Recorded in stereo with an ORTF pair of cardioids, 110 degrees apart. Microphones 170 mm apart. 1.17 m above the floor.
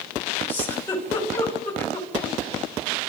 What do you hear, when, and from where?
0.5 s a giggle: 15° left, 4.5 m